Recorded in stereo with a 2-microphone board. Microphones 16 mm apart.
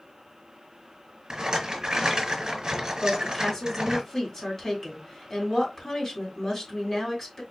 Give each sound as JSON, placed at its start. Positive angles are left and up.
{"t": 1.3, "sound": "a rattle", "side_deg": -45, "distance_m": 1.5}
{"t": 3.0, "sound": "a woman speaking", "side_deg": 30, "distance_m": 2.5}